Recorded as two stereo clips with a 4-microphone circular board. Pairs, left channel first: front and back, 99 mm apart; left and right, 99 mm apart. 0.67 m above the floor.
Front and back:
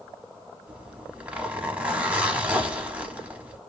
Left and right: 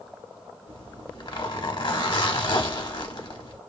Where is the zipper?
105° left, 0.8 m.